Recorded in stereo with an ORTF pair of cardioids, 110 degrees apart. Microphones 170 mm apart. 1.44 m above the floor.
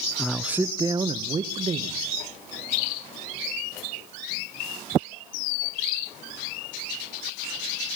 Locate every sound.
0.2 s a man speaking: 5° left, 0.7 m; by 2.0 s 40° right, 1.5 m